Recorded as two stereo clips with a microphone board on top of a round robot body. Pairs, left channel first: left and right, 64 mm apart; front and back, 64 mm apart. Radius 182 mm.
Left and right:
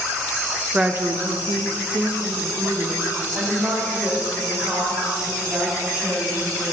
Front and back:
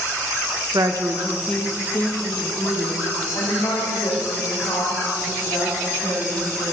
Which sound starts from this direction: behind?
A woman speaking, at 0.7 s.